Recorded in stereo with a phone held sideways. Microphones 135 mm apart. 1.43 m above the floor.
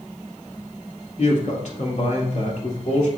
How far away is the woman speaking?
About 3 m.